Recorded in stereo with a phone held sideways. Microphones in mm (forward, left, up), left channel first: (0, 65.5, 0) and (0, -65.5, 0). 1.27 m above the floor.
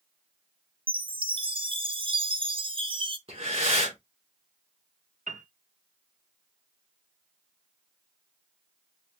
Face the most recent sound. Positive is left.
turn(degrees=-75)  # may be behind; listen again after turning